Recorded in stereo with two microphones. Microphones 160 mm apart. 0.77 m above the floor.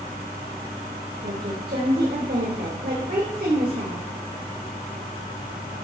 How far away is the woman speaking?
About 3 m.